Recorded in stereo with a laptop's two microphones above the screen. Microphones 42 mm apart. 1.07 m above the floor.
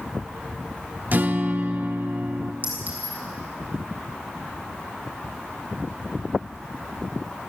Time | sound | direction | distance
1.1 | a guitar | 45° right (ahead or behind) | 0.7 m
2.6 | a clink | 45° right (ahead or behind) | 6 m